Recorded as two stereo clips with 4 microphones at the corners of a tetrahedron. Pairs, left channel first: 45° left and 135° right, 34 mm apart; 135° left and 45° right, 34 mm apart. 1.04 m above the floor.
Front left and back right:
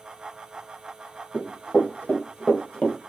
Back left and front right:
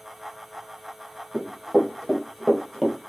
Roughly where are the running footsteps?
Ahead left.